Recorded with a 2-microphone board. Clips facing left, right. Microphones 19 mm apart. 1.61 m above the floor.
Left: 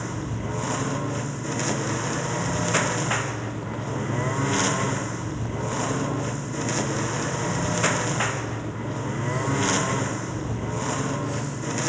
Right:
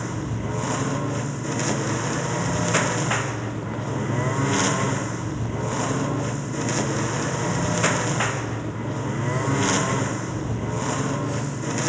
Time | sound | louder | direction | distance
0.0 | a lawn mower | right 2 dB | centre (ahead or behind) | ?